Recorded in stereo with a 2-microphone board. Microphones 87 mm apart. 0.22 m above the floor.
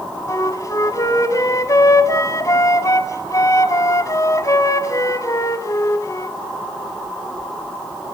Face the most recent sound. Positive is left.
turn(degrees=40)  # may be behind; listen again after turning